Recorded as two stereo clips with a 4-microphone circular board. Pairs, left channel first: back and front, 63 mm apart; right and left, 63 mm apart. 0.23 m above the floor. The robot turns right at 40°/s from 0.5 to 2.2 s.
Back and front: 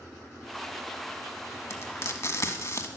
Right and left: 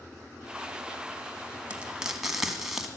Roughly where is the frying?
Behind left.